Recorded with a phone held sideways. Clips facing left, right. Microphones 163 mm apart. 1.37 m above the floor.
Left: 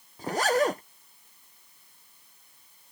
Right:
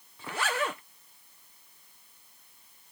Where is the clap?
No clap in this recording.